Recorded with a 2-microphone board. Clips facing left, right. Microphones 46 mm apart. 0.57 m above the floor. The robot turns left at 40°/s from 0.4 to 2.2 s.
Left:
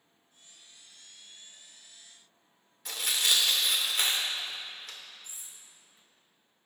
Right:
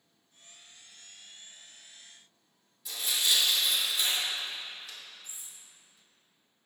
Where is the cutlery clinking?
75° left (ahead or behind), 1.6 m.